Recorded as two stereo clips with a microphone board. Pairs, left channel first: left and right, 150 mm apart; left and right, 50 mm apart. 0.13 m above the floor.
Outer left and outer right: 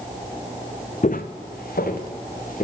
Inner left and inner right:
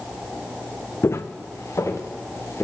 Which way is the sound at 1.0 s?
55° left (ahead or behind).